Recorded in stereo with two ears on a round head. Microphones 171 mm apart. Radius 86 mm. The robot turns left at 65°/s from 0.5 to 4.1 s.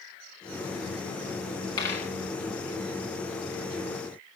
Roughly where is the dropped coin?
Left.